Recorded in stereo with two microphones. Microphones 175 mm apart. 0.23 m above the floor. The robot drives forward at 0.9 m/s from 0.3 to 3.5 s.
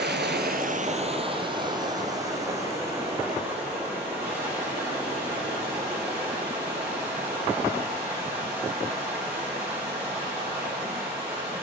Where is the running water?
70° right (ahead or behind), 0.7 m; by 11.6 s 10° right (ahead or behind), 3 m.